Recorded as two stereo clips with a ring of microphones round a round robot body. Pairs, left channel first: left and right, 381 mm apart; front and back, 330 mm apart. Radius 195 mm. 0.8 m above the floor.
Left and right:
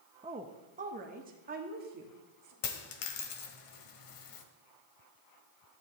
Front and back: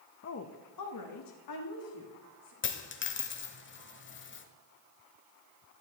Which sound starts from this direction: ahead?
A woman speaking, at 0.2 s.